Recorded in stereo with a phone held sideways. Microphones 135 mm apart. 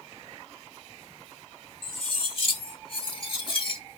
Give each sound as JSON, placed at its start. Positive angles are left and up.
{"t": 1.8, "sound": "cutlery clinking", "side_deg": 45, "distance_m": 2.5}